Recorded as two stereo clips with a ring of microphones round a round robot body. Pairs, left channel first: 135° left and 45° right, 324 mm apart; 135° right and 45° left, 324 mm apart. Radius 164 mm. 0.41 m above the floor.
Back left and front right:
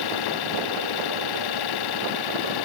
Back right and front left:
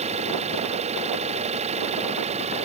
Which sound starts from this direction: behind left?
An engine running, at 0.0 s.